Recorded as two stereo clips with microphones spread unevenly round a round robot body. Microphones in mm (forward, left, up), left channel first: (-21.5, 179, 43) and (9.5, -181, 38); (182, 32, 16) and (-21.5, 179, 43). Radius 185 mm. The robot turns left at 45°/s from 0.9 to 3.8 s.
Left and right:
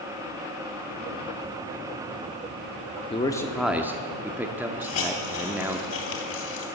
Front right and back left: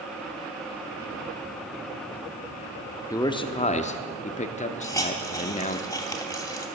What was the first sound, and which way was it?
A man speaking, 30° left.